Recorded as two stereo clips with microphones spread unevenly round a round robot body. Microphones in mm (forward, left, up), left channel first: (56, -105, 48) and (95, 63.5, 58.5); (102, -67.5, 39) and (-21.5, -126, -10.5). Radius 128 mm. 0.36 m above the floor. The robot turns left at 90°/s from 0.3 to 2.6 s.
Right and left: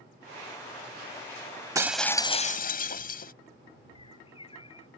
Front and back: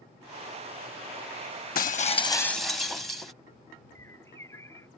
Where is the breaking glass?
5° left; by 3.3 s 70° right.